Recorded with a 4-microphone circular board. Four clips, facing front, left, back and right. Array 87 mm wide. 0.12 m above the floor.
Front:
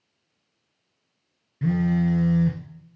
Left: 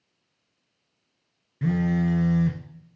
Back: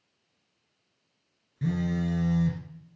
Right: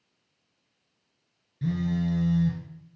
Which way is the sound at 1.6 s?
65° left.